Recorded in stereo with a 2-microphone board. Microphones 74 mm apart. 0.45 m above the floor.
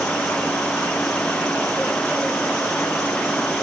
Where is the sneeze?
I don't hear a sneeze.